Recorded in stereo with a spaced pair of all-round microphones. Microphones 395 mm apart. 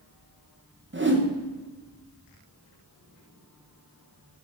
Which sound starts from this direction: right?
A whoosh, at 0.9 s.